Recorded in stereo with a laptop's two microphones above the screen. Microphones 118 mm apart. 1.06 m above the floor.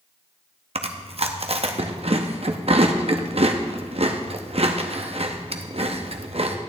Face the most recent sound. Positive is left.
turn(degrees=-55)  # may be behind; listen again after turning